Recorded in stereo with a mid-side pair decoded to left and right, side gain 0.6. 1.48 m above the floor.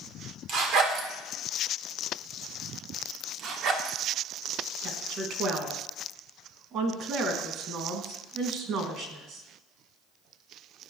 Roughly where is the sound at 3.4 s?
Ahead right.